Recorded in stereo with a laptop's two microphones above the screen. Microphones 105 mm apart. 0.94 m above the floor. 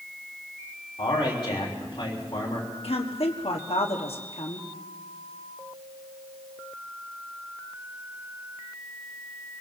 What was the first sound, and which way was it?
A man speaking, 50° left (ahead or behind).